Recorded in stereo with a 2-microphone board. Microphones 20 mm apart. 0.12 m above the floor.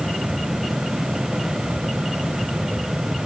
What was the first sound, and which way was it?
Only background noise.